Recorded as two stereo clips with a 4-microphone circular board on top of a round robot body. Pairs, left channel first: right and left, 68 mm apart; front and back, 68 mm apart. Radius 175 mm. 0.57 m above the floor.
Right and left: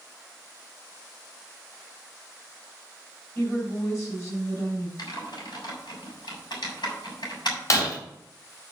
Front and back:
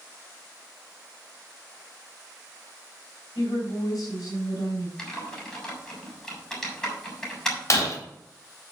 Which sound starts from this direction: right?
Typing on a keyboard, at 5.0 s.